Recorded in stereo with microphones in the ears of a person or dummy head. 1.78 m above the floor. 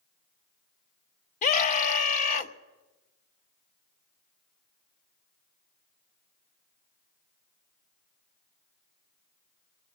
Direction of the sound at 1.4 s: 40° left (ahead or behind).